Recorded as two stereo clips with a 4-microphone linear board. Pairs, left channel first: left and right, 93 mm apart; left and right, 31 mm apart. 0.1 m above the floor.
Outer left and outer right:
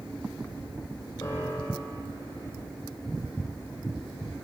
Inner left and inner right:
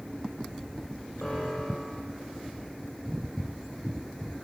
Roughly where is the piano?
Left.